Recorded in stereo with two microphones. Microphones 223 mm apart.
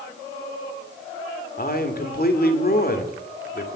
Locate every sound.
1.6 s a man speaking: 45° left (ahead or behind), 1.7 m